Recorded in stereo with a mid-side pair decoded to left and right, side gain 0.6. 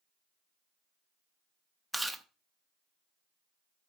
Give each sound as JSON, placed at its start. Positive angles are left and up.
{"t": 1.9, "sound": "chewing", "azimuth_deg": -10, "distance_m": 0.8}